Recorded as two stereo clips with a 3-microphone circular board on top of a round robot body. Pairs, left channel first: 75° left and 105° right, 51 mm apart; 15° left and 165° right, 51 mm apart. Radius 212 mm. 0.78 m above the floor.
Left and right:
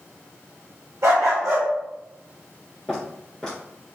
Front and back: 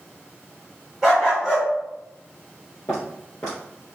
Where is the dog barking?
85° right, 1.0 m.